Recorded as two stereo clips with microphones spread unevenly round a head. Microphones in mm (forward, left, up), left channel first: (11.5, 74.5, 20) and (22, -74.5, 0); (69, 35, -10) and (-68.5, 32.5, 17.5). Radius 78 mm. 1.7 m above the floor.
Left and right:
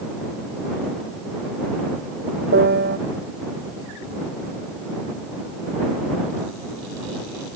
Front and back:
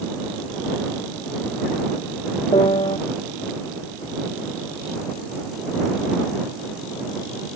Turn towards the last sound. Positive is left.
turn(degrees=-65)